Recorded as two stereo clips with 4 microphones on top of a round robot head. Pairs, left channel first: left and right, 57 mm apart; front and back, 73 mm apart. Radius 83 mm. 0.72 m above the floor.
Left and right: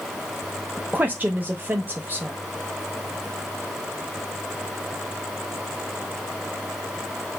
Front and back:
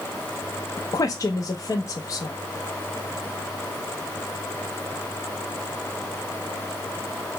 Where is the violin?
No violin in this recording.